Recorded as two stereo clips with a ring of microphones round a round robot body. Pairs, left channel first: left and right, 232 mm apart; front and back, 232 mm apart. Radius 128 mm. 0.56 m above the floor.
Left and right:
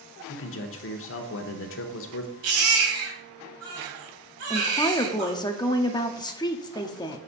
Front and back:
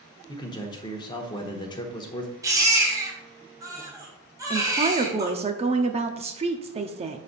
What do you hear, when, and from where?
0.3 s a man speaking: 70° left, 1.1 m
2.4 s a baby crying: 105° right, 3 m
4.5 s a woman speaking: 145° left, 0.7 m